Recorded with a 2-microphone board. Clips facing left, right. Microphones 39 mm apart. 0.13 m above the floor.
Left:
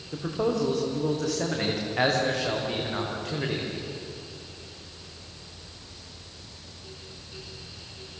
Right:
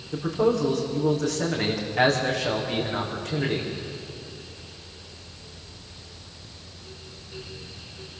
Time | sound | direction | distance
0.1 | a man speaking | 5° left (ahead or behind) | 7 m